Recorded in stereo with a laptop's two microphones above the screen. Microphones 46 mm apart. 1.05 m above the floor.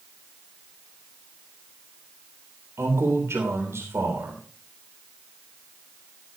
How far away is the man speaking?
About 3.5 m.